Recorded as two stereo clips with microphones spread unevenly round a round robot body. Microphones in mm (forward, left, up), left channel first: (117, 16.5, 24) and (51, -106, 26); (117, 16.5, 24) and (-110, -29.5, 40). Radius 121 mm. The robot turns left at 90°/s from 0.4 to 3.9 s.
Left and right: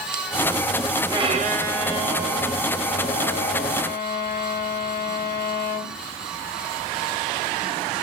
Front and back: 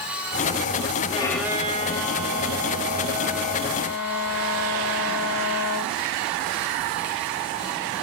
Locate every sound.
1.1 s a violin: 55° right, 0.8 m; by 5.9 s 55° left, 0.8 m